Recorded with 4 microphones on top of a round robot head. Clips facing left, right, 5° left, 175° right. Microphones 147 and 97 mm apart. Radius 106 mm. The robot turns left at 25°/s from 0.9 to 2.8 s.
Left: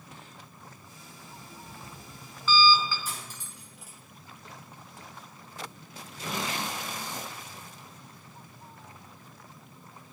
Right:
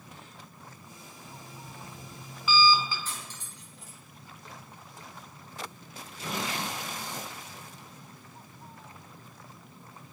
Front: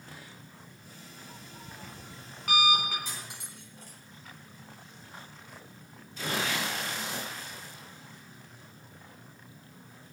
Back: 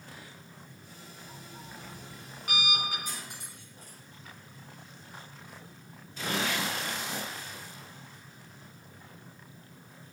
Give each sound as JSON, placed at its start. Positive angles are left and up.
{"t": 1.2, "sound": "an alarm clock", "azimuth_deg": 20, "distance_m": 4.0}
{"t": 3.0, "sound": "cutlery clinking", "azimuth_deg": 10, "distance_m": 4.0}